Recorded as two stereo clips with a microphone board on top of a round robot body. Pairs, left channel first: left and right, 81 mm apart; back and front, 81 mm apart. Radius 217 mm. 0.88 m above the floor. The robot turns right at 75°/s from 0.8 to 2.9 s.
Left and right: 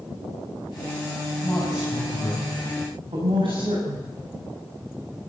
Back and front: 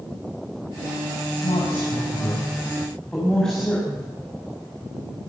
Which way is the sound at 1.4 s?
150° left.